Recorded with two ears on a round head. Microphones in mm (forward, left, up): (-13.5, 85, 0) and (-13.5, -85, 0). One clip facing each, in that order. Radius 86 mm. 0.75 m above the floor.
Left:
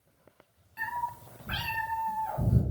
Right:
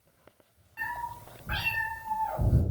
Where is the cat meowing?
35° left (ahead or behind), 1.0 m.